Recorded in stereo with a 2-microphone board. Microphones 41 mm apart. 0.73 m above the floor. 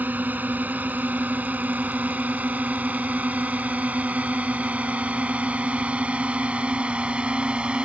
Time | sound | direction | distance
0.0 | a drone | 45° right (ahead or behind) | ?